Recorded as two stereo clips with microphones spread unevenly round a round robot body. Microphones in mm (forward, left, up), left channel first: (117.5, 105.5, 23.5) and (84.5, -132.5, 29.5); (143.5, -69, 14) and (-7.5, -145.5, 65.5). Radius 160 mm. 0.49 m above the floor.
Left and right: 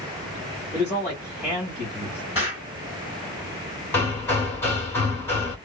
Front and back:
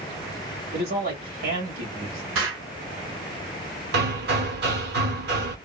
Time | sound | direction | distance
0.7 | a man speaking | straight behind | 1.5 m
2.4 | an explosion | straight behind | 0.9 m
3.9 | hammering | 165° left | 0.6 m